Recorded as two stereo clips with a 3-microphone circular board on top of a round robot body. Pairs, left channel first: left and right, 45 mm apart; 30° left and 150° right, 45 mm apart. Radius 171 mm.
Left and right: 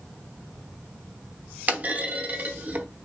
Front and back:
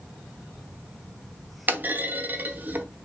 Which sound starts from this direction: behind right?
A clunk, at 1.7 s.